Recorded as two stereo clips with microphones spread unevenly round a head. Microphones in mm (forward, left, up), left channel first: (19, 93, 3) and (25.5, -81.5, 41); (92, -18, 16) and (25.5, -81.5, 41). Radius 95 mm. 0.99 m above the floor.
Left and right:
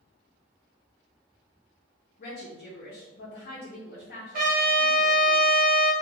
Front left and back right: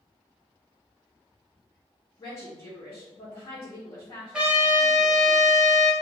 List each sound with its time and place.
2.2 s a woman speaking: 80° left, 0.8 m
4.3 s a trumpet: 50° right, 1.1 m